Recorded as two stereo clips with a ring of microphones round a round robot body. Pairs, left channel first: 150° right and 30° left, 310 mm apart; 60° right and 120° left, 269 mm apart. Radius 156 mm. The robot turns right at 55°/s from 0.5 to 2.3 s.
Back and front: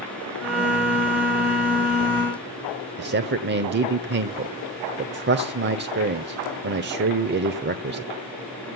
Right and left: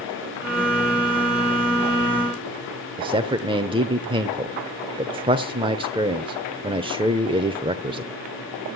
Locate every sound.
3.0 s a man speaking: 60° left, 0.9 m